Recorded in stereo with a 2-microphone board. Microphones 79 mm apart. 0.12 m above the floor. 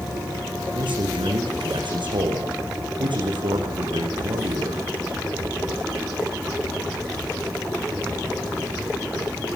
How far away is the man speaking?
About 7.5 m.